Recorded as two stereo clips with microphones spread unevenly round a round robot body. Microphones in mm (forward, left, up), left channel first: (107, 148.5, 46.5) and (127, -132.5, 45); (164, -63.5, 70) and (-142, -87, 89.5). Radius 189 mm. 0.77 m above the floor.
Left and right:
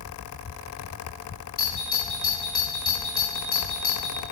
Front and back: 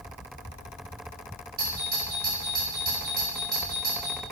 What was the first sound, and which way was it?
A doorbell, 120° left.